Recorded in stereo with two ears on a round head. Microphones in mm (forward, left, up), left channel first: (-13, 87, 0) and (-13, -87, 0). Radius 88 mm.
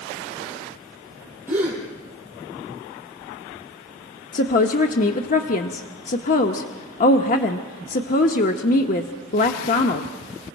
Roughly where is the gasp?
Centre.